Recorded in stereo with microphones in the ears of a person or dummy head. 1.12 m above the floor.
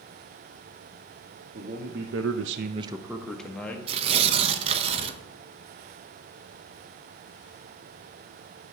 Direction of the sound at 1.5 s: 50° right (ahead or behind).